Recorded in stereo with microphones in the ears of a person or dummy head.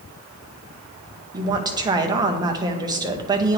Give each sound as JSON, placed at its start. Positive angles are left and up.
{"t": 1.3, "sound": "a woman speaking", "side_deg": -20, "distance_m": 0.5}